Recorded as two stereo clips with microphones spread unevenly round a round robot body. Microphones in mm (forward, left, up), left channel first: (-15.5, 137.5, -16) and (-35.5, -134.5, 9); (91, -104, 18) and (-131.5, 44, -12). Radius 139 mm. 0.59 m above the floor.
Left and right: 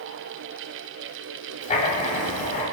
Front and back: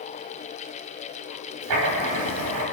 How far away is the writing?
About 4 m.